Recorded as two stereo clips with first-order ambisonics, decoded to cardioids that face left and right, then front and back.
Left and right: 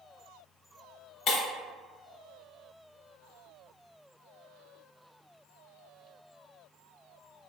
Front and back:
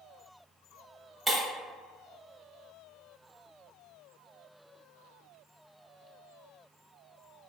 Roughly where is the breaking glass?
Left.